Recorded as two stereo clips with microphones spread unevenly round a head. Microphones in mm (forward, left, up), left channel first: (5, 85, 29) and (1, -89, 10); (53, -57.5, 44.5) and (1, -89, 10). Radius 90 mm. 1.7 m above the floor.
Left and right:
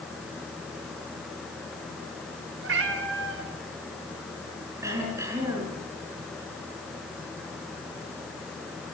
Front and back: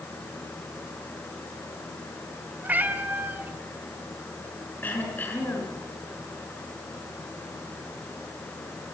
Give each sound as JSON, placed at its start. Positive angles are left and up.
{"t": 2.6, "sound": "a cat meowing", "azimuth_deg": -75, "distance_m": 3.0}
{"t": 4.8, "sound": "throat clearing", "azimuth_deg": -15, "distance_m": 5.5}